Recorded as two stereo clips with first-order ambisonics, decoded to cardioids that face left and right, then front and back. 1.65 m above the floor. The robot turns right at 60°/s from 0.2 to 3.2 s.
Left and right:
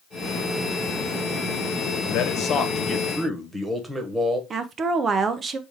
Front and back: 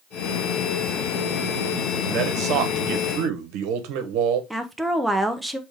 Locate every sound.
2.0 s a man speaking: 120° left, 1.0 m; by 4.4 s 170° right, 1.0 m
4.5 s a woman speaking: 100° right, 0.5 m